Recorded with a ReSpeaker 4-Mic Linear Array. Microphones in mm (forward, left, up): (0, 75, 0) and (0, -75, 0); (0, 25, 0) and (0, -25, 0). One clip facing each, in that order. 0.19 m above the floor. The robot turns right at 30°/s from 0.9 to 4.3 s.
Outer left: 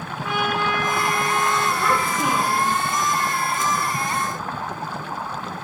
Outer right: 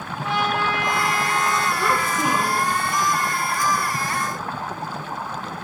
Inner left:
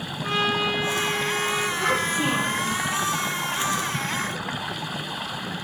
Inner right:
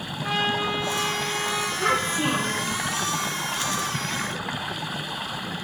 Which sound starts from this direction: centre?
A child speaking, at 1.8 s.